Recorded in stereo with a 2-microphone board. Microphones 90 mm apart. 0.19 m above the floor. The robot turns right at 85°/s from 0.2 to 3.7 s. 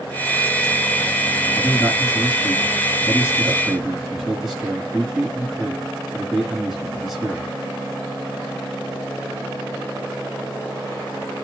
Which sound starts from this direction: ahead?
A man speaking, at 1.6 s.